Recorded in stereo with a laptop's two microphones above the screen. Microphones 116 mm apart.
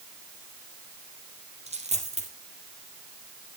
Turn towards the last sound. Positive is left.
turn(degrees=-70)  # may be behind; listen again after turning